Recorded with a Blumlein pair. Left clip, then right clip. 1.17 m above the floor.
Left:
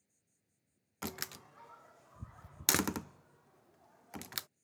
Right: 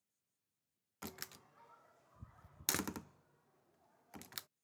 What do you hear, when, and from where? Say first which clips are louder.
0.0 s an insect: left 10 dB; 35° left
1.0 s a door slam: left 8 dB; 70° left